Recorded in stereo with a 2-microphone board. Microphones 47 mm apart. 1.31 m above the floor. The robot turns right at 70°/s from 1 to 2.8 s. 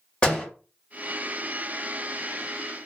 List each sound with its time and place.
0.2 s a door slam: 20° left (ahead or behind), 1.7 m